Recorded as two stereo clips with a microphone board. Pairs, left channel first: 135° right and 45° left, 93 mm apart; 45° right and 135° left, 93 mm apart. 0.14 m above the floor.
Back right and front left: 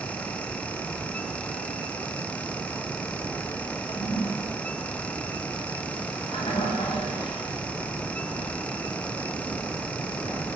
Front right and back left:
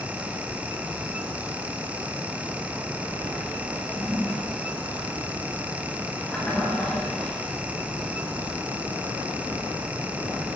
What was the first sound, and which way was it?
A toilet flushing, 120° right.